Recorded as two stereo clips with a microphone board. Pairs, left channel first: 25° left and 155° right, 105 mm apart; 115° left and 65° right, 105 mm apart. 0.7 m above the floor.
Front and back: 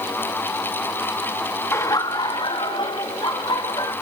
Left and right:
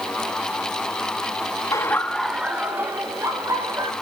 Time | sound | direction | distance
1.7 | laughter | 75° left | 1.2 m